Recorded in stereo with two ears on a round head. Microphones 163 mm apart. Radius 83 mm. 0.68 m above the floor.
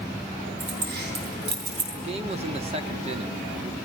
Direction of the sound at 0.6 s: 55° right (ahead or behind).